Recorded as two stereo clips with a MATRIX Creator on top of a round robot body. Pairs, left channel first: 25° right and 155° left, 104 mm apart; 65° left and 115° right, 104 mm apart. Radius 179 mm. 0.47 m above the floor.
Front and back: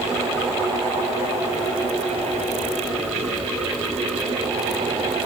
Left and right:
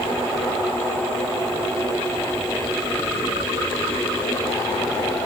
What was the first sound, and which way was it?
Only background noise.